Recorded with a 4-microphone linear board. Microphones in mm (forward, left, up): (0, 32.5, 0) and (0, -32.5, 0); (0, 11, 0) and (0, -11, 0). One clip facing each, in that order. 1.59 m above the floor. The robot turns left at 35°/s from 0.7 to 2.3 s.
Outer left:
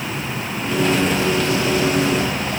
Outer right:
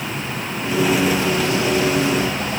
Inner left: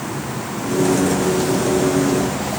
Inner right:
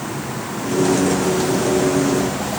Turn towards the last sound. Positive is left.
No sound to turn to.